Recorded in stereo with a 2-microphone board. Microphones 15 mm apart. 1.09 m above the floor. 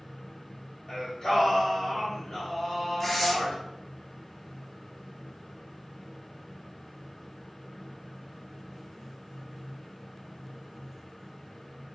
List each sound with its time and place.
0.9 s singing: 45° left (ahead or behind), 1.1 m
3.0 s tearing paper: 15° left (ahead or behind), 0.6 m